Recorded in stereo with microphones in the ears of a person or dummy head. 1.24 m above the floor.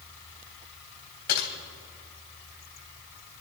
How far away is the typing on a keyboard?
About 3 m.